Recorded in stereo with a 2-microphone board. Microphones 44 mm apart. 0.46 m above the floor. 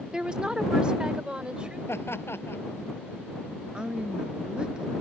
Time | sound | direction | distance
0.1 | a woman speaking | 20° right (ahead or behind) | ?
1.9 | laughter | 75° left (ahead or behind) | ?
3.7 | a woman speaking | 25° right (ahead or behind) | ?